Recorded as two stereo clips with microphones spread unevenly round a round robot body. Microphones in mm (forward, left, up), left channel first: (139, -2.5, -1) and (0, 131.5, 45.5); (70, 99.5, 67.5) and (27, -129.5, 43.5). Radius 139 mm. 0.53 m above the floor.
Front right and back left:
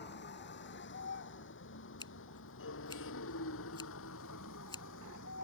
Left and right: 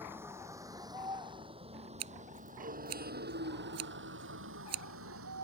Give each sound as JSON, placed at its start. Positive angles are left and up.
{"t": 0.0, "sound": "a vehicle", "azimuth_deg": -20}
{"t": 2.0, "sound": "scissors", "azimuth_deg": -120}